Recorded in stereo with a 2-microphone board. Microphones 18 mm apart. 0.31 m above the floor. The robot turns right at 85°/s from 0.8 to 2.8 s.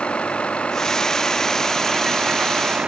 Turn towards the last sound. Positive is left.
turn(degrees=-90)